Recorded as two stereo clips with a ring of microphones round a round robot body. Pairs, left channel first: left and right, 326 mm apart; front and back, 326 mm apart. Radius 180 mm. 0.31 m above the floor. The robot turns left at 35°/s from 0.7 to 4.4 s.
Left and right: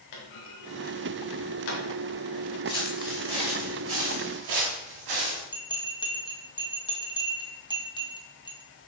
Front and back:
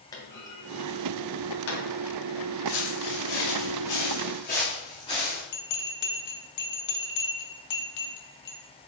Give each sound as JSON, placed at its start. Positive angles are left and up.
{"t": 0.1, "sound": "a clunk", "azimuth_deg": 80, "distance_m": 2.0}
{"t": 2.7, "sound": "footsteps", "azimuth_deg": 15, "distance_m": 4.0}
{"t": 5.5, "sound": "a bell", "azimuth_deg": 15, "distance_m": 1.4}